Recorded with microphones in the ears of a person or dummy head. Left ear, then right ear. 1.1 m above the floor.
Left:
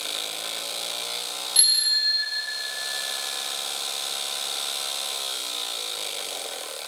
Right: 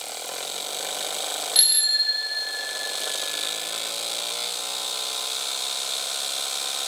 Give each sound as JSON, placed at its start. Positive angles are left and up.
{"t": 1.6, "sound": "a bicycle bell", "side_deg": -15, "distance_m": 6.5}